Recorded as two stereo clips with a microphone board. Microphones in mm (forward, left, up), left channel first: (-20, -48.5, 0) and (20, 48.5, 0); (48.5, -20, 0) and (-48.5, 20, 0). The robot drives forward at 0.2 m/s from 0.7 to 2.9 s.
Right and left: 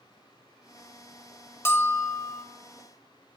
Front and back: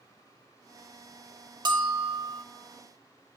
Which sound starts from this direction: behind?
A bell, at 1.6 s.